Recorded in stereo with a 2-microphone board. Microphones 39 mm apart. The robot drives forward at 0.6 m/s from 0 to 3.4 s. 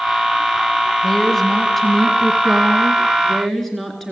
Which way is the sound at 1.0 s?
10° left (ahead or behind).